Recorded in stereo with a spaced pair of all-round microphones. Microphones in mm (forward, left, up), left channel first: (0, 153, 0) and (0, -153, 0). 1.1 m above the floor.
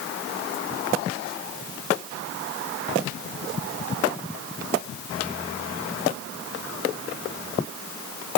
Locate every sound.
Only background noise.